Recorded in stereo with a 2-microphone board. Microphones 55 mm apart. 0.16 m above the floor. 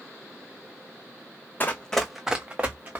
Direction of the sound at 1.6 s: 35° left (ahead or behind).